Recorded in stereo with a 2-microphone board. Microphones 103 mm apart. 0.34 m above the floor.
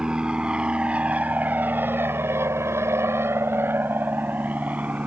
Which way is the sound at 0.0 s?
5° right (ahead or behind).